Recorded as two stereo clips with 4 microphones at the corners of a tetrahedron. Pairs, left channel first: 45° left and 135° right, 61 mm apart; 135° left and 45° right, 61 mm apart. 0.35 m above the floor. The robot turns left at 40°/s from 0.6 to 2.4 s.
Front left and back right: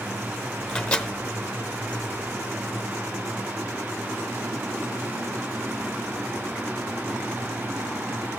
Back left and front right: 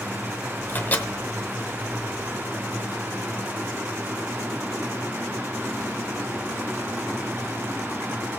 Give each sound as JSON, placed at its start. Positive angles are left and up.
{"t": 0.7, "sound": "a microwave", "azimuth_deg": 115, "distance_m": 0.8}